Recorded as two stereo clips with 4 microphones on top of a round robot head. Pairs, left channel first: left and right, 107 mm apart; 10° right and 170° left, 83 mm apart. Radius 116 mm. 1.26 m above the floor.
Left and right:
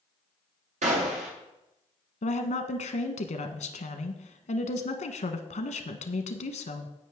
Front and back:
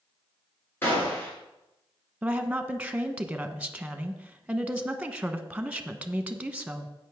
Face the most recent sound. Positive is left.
turn(degrees=95)